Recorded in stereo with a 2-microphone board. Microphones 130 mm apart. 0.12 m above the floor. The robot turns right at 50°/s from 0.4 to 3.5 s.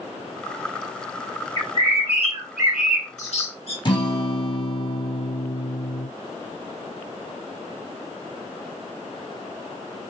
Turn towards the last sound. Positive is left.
turn(degrees=40)  # may be behind; listen again after turning